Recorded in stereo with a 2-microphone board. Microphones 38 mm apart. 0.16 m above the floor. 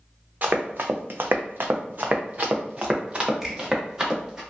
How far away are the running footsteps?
About 0.7 m.